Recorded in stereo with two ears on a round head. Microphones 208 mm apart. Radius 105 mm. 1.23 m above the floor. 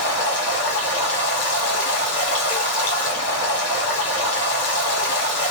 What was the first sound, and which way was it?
Running water, 55° left (ahead or behind).